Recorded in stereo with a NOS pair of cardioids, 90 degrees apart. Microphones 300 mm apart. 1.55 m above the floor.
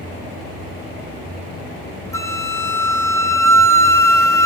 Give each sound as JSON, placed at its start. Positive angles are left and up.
{"t": 2.1, "sound": "a flute", "azimuth_deg": 10, "distance_m": 1.0}